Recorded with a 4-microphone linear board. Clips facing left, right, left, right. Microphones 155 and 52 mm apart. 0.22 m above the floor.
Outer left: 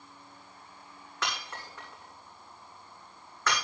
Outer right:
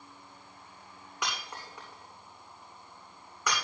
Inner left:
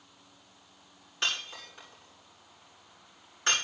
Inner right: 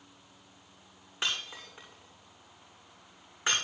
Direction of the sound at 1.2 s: 15° right (ahead or behind).